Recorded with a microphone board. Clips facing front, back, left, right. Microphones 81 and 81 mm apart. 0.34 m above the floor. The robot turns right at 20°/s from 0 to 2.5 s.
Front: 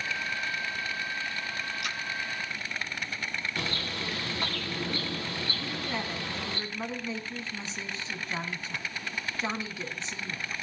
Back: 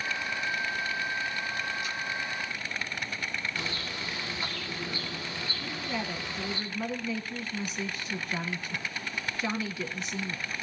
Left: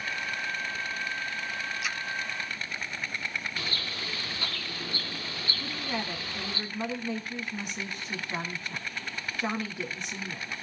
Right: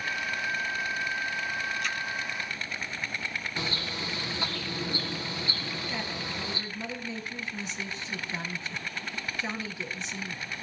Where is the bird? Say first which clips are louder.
Front 2 dB, right 2 dB; 25° right, 3.5 m.